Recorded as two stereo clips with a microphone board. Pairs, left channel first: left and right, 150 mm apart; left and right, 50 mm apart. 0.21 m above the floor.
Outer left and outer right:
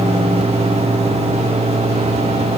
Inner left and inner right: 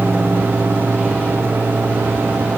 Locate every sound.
Only background noise.